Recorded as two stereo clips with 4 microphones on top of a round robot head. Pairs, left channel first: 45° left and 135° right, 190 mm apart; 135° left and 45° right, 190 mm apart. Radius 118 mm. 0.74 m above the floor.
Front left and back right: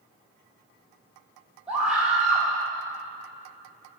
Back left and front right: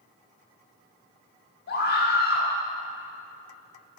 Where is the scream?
140° left, 1.5 m.